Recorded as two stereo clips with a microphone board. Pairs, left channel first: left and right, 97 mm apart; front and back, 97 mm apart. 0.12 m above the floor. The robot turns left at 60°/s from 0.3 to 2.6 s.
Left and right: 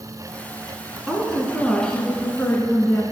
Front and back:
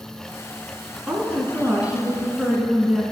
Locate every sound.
1.1 s a woman speaking: 165° right, 1.1 m; by 3.0 s 100° left, 1.1 m